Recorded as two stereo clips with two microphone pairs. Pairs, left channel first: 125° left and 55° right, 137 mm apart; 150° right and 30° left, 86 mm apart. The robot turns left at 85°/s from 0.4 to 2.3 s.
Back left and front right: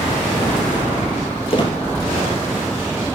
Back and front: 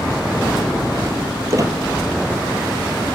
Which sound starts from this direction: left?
A squeak, at 1.5 s.